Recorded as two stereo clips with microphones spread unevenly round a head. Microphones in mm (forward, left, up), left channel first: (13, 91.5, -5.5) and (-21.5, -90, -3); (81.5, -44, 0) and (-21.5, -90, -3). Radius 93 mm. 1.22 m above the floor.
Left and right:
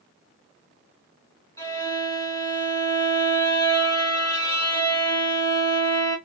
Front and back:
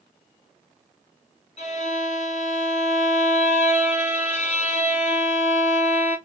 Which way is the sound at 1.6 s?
5° left.